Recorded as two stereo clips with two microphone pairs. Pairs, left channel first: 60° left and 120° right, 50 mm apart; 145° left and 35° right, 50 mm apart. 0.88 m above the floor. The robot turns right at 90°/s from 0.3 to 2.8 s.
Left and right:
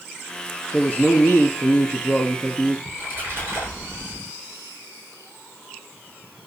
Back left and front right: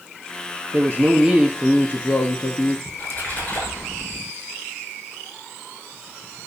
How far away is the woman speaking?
About 1.2 m.